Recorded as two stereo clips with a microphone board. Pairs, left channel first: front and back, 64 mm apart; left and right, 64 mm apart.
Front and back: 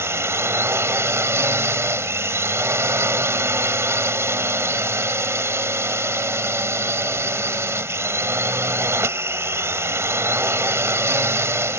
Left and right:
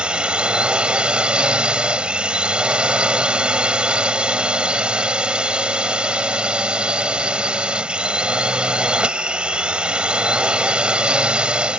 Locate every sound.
0.0 s a drone: 160° right